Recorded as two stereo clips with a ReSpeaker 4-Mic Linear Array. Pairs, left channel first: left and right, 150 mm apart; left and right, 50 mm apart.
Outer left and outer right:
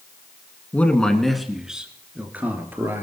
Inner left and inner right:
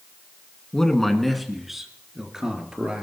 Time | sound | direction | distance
0.7 | a man speaking | 10° left (ahead or behind) | 2 m